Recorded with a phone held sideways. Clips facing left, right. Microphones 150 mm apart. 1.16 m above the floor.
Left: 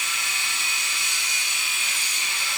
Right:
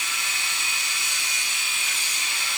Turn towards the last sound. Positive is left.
No sound to turn to.